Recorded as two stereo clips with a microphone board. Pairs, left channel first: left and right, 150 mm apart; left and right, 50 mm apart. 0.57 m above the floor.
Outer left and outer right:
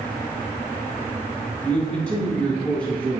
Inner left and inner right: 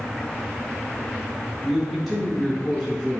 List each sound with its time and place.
1.6 s a man speaking: 5° left (ahead or behind), 5 m